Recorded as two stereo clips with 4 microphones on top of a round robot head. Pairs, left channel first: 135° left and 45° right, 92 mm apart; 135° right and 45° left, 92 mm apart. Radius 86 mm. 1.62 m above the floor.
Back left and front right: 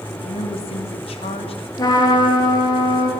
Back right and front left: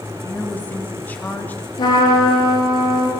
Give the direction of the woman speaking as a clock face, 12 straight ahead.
7 o'clock.